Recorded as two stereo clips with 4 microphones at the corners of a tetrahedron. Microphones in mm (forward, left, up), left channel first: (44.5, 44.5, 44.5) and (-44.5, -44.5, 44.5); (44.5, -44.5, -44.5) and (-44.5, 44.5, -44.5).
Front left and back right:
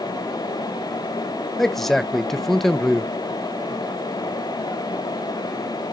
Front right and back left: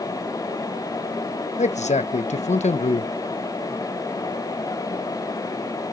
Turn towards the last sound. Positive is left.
turn(degrees=-45)